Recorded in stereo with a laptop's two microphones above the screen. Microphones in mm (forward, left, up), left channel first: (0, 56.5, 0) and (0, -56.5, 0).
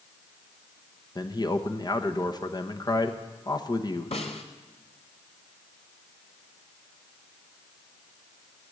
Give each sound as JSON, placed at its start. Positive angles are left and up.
{"t": 1.1, "sound": "a man speaking", "side_deg": 35, "distance_m": 1.0}
{"t": 4.1, "sound": "a snare drum", "side_deg": 65, "distance_m": 1.4}